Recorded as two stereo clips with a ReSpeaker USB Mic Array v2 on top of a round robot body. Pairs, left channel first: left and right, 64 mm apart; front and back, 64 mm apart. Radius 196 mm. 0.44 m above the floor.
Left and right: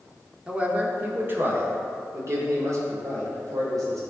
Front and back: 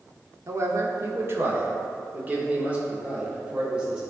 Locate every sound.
0.5 s a man speaking: 160° right, 1.7 m; by 4.0 s 105° right, 3 m